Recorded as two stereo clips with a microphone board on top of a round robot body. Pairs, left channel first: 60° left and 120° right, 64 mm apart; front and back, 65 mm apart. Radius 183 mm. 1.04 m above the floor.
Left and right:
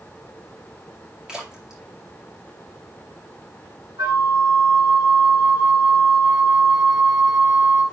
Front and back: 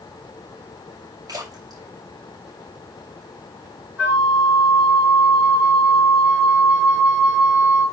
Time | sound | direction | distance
1.3 | a splash | 160° left | 2 m
4.0 | a flute | 115° right | 4 m